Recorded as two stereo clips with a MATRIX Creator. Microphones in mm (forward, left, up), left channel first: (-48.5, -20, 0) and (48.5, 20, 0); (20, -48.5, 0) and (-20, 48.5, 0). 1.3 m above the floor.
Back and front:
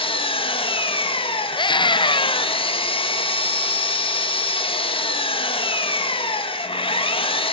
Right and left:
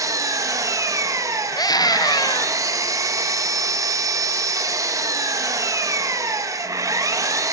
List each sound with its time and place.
0.0 s an engine running: 170° left, 1.5 m
1.5 s a scream: 120° right, 0.7 m